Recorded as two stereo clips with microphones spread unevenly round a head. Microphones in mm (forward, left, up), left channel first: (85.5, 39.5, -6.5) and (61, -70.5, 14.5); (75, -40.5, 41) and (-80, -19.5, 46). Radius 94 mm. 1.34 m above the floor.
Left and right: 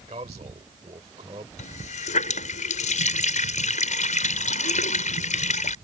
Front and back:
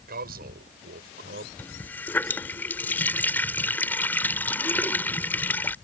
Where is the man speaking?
165° right.